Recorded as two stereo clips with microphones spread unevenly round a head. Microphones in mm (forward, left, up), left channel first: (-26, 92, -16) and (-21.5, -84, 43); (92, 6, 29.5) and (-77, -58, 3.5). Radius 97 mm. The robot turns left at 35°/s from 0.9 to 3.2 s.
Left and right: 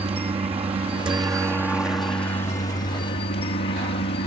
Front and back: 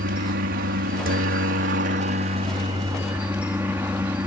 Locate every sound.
0.0 s a helicopter: 155° right; by 4.3 s 125° left